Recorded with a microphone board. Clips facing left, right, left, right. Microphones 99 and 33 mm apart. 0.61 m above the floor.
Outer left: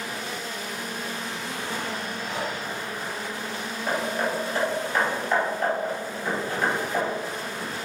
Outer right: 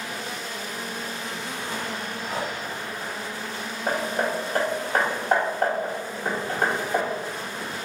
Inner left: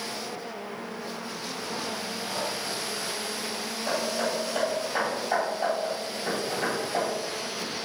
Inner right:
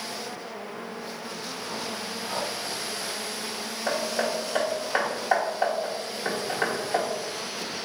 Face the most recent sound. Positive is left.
turn(degrees=-45)  # may be behind; listen again after turning